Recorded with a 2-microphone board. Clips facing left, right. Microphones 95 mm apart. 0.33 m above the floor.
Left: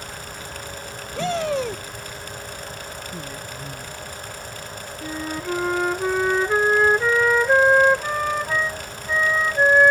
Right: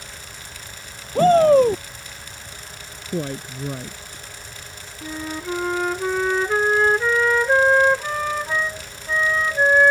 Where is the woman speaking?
65° right (ahead or behind).